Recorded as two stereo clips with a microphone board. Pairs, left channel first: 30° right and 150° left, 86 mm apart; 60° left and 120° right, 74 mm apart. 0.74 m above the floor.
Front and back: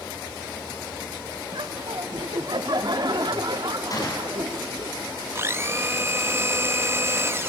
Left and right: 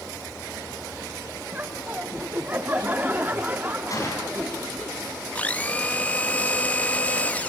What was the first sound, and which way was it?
Laughter, 175° left.